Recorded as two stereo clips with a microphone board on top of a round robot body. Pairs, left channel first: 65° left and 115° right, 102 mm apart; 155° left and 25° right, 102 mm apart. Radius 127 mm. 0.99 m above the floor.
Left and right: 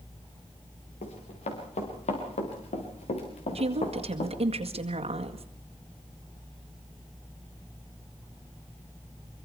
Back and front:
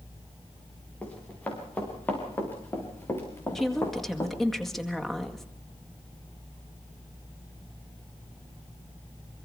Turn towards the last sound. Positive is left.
turn(degrees=-115)